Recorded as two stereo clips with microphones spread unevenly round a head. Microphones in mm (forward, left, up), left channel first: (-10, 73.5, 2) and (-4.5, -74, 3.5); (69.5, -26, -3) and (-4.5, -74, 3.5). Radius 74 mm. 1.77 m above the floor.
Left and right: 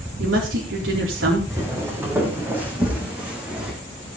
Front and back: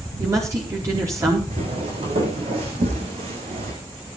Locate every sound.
0.2 s a woman speaking: 90° right, 4.5 m
1.5 s footsteps: 160° right, 5 m; by 3.7 s 170° right, 5.5 m